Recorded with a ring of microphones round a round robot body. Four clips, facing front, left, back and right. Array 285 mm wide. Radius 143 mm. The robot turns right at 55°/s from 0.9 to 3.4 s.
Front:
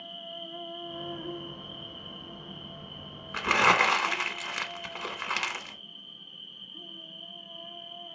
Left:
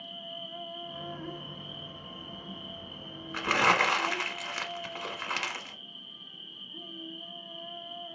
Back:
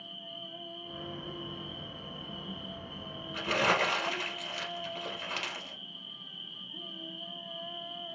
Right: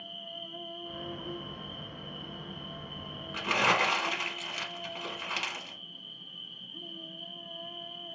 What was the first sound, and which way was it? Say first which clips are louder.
An insect: left 2 dB, front 5 dB; 40° left.